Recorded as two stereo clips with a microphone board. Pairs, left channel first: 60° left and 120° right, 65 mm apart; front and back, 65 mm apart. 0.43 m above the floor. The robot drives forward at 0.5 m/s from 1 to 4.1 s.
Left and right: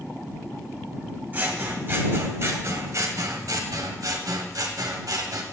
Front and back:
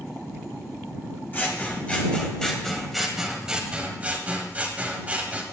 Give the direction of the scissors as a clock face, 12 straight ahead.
2 o'clock.